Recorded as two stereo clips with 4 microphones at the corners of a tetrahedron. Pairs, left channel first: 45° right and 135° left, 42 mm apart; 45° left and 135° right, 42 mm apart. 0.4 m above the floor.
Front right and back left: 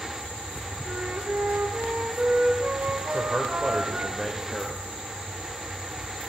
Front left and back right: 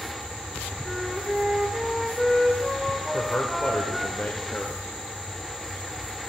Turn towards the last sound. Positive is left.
turn(degrees=35)